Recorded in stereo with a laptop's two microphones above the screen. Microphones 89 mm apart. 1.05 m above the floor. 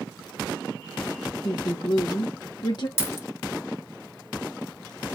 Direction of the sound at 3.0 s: 30° left (ahead or behind).